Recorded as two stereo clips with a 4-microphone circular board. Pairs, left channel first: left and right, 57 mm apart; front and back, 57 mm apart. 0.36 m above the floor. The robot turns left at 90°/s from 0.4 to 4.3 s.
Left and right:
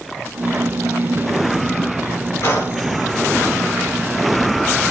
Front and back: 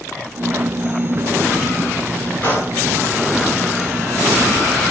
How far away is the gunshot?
About 3.5 m.